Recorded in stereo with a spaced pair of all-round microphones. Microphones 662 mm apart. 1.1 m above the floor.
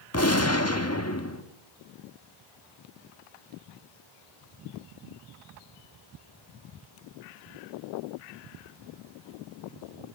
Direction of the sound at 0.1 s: 20° left (ahead or behind).